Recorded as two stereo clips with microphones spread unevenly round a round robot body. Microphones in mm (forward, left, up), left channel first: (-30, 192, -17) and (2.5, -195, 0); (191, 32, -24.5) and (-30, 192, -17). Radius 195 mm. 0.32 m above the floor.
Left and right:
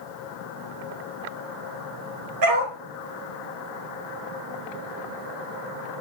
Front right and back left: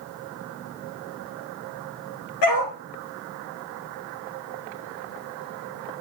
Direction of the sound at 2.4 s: 35° right.